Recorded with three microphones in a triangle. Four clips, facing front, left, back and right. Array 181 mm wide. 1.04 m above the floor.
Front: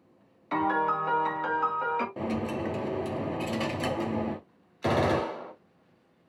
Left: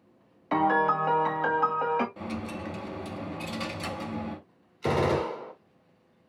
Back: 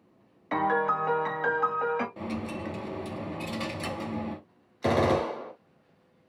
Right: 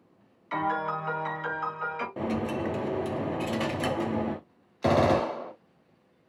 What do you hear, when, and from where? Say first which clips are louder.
0.5 s a piano: left 5 dB, even; 105° left, 1.5 m
2.2 s a dropped coin: right 6 dB, front 4 dB; 60° right, 0.8 m
4.8 s a gunshot: right 3 dB, back 1 dB; 95° right, 2.5 m